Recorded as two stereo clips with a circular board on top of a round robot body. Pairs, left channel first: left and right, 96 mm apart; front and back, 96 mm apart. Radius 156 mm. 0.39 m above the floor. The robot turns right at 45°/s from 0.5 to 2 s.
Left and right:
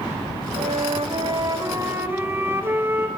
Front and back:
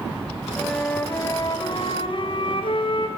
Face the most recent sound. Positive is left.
turn(degrees=-25)